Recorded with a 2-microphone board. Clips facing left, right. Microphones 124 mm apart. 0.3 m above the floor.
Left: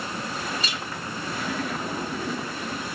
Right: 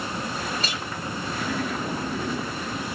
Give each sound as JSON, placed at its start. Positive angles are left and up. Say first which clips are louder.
{"t": 0.6, "sound": "a clink", "louder": "right 1 dB", "side_deg": -50, "distance_m": 1.5}